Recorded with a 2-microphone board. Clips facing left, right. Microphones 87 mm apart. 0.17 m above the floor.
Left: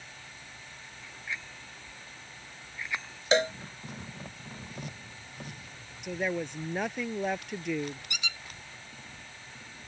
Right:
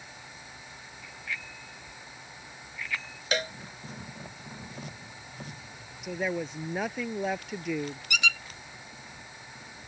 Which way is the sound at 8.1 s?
75° right (ahead or behind).